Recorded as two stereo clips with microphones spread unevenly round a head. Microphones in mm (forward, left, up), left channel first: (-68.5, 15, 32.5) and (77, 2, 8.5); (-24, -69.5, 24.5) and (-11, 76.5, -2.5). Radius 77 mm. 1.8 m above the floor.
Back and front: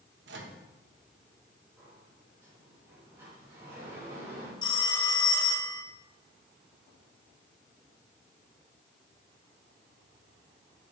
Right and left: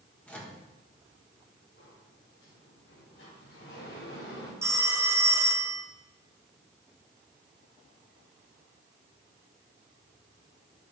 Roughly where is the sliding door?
Right.